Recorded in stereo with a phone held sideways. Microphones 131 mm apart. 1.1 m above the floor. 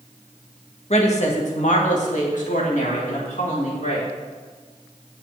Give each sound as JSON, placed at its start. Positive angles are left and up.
{"t": 0.9, "sound": "a woman speaking", "side_deg": 55, "distance_m": 1.6}